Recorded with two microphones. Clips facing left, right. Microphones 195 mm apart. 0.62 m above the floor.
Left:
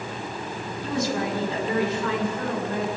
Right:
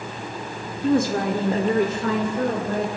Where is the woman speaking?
50° right (ahead or behind), 1.9 m; by 2.9 s 40° right (ahead or behind), 3 m.